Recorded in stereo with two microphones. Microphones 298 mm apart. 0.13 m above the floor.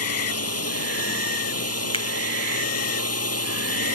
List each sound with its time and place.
0.0 s a drone: 55° left (ahead or behind)
1.9 s a finger snap: 20° left (ahead or behind)